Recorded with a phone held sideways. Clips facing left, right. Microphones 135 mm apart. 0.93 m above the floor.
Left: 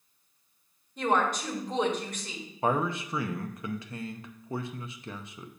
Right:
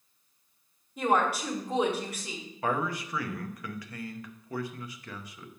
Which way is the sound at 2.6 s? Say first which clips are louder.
Left 3 dB; 25° left (ahead or behind).